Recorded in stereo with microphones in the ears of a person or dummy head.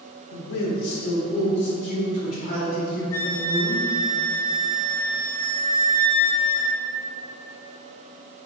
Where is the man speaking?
70° left (ahead or behind), 1.0 m; by 3.9 s 30° left (ahead or behind), 3 m.